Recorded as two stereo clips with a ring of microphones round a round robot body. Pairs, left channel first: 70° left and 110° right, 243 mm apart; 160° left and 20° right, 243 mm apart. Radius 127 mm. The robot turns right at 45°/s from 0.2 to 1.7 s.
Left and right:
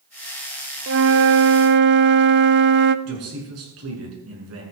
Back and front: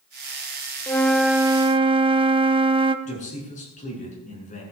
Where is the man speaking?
140° right, 6.5 m.